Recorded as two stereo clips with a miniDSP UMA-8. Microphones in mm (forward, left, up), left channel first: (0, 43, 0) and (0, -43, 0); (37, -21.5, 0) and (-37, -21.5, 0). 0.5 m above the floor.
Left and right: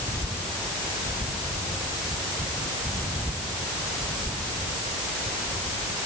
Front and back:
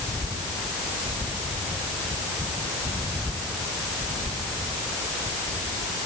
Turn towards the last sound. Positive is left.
No sound to turn to.